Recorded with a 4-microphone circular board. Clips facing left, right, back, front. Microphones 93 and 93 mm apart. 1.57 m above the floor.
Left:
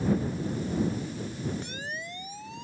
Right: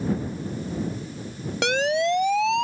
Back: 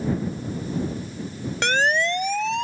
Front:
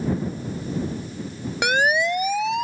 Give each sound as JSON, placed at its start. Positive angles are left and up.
{"t": 1.6, "sound": "a siren", "azimuth_deg": -80}